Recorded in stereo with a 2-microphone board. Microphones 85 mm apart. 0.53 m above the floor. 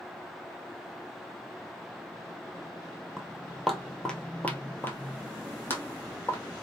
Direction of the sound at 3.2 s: 5° right (ahead or behind).